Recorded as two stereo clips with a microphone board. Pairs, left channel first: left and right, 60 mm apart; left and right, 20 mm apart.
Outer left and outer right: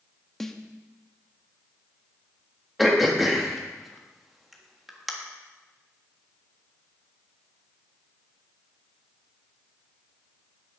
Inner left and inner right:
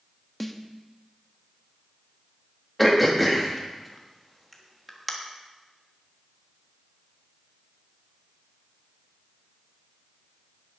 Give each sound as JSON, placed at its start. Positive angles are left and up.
{"t": 0.4, "sound": "a snare drum", "side_deg": 5, "distance_m": 0.8}
{"t": 2.8, "sound": "throat clearing", "side_deg": 0, "distance_m": 1.6}